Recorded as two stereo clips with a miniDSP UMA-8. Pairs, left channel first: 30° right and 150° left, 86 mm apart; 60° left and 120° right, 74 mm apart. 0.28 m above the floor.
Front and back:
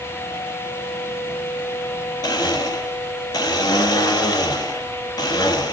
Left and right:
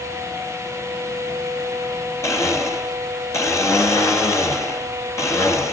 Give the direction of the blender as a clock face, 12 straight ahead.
12 o'clock.